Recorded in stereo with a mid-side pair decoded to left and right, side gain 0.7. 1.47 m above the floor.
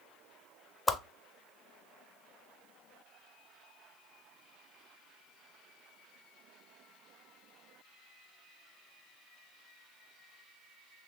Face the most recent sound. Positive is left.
turn(degrees=20)